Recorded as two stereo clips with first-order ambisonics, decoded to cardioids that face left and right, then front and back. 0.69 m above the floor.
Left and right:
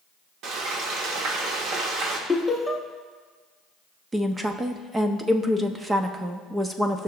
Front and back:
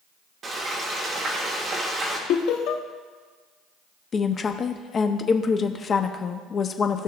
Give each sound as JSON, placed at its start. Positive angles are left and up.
{"t": 0.4, "sound": "frying", "azimuth_deg": -115, "distance_m": 1.5}
{"t": 2.3, "sound": "laughter", "azimuth_deg": 10, "distance_m": 0.8}
{"t": 4.1, "sound": "a woman speaking", "azimuth_deg": -30, "distance_m": 0.6}